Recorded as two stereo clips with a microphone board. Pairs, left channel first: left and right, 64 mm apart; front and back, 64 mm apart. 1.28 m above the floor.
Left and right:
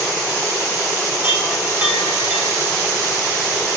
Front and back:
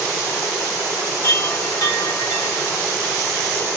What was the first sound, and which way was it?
A chime, 25° right.